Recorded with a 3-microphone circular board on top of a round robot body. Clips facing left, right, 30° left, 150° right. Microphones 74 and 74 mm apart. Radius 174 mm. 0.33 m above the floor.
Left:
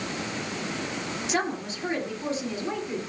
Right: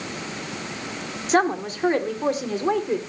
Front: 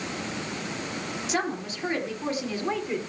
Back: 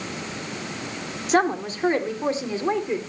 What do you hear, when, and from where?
1.3 s a woman speaking: 120° right, 2 m; by 3.0 s 80° right, 2.5 m